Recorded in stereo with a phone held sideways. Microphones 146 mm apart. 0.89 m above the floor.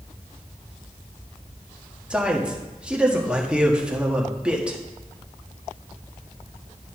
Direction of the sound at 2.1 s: 5° right (ahead or behind).